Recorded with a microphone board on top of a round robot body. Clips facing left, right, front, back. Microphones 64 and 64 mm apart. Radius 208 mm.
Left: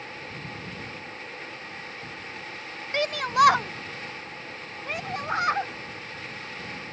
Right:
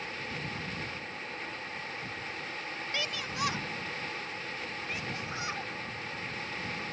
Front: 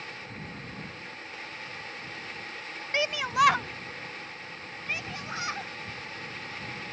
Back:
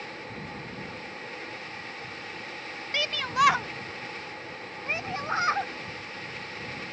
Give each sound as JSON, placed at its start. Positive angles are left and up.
{"t": 2.9, "sound": "a shout", "azimuth_deg": 60}